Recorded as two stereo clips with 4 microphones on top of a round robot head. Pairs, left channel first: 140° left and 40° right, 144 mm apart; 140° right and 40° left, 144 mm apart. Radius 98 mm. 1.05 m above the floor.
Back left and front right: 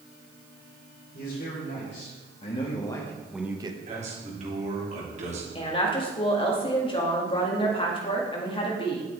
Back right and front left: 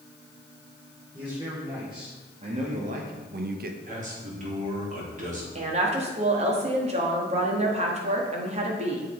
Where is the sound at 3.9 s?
5° left, 3 m.